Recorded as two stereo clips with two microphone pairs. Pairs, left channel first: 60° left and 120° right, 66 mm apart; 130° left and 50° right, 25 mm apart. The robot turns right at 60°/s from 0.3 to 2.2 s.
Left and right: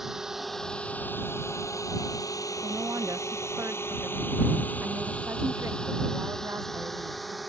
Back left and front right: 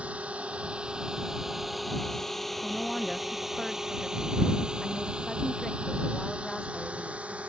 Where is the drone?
35° right; by 7.5 s 30° right.